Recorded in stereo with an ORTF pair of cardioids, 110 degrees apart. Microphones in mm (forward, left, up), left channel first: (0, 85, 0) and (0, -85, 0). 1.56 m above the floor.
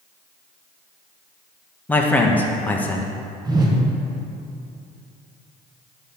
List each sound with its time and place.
1.9 s a man speaking: 10° left, 1.0 m
3.5 s a whoosh: 25° right, 1.1 m